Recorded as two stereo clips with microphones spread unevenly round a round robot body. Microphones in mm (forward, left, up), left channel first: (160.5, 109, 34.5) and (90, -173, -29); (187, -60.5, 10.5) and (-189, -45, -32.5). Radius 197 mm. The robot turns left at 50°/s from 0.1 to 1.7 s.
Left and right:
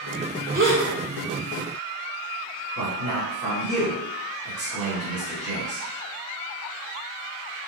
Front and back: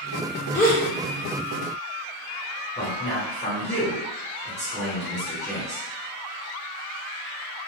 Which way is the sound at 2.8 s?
95° right.